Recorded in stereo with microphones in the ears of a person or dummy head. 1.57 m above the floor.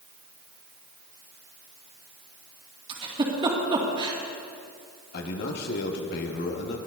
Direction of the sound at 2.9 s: 25° right (ahead or behind).